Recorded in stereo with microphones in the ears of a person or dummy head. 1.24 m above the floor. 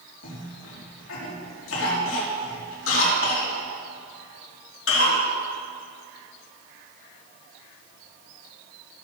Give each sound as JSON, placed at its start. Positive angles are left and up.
{"t": 0.2, "sound": "a cough", "side_deg": 80, "distance_m": 3.0}